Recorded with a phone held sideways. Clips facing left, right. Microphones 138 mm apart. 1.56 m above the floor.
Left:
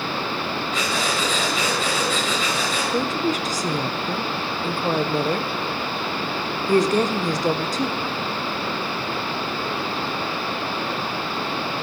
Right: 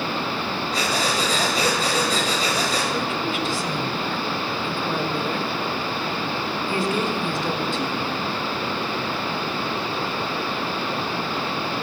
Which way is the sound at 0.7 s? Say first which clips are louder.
Right 2 dB; 35° right (ahead or behind).